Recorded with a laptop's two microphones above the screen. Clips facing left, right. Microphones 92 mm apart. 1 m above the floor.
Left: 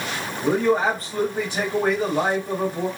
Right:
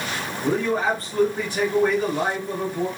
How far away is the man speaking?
About 0.8 m.